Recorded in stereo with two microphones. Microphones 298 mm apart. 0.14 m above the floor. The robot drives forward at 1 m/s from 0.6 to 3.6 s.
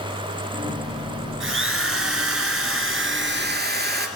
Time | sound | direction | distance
1.4 | a drill | 40° right (ahead or behind) | 1.7 m